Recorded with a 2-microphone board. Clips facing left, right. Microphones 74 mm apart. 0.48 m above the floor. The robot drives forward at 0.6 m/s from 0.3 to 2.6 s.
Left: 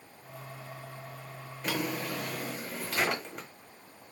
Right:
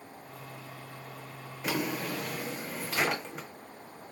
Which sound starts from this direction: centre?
A drawer, at 1.6 s.